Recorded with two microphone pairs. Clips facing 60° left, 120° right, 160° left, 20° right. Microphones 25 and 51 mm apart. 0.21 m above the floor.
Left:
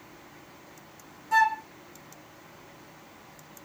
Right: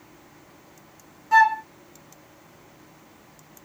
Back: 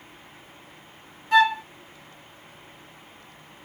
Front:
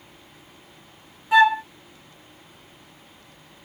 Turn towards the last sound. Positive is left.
turn(degrees=-95)